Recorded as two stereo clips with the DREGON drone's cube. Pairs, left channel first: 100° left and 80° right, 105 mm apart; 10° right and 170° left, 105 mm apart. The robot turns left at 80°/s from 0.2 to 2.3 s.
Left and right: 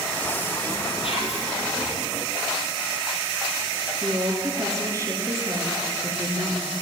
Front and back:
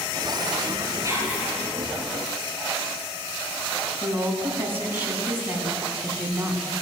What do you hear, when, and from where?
1.0 s whispering: 120° left, 4.5 m; by 1.5 s 85° left, 4.5 m
4.0 s a woman speaking: 125° right, 2 m